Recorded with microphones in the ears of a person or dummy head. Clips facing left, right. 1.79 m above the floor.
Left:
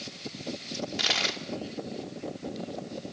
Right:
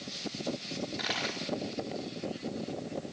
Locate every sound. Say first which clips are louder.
0.7 s a dropped coin: left 2 dB; 55° left (ahead or behind), 2.5 m